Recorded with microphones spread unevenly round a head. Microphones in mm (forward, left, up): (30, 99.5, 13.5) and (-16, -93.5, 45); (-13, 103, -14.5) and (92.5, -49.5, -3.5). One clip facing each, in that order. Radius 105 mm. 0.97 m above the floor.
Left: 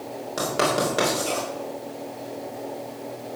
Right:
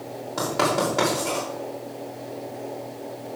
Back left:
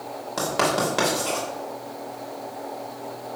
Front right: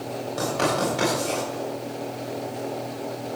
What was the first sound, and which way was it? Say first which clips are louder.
Writing: even, back left 1 dB; 150° left.